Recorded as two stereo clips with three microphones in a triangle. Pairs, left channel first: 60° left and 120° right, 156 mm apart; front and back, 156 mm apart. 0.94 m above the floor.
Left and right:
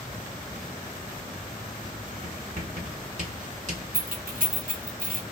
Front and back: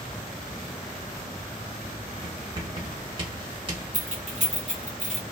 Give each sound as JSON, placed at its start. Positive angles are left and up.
{"t": 2.2, "sound": "writing", "azimuth_deg": -135, "distance_m": 1.2}
{"t": 3.9, "sound": "keys jangling", "azimuth_deg": -140, "distance_m": 0.9}